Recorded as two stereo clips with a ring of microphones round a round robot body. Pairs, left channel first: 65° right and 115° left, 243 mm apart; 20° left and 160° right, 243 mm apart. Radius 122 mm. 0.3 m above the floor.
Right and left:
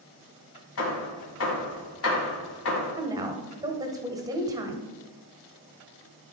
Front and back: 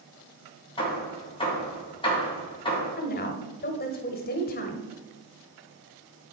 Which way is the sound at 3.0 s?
45° left.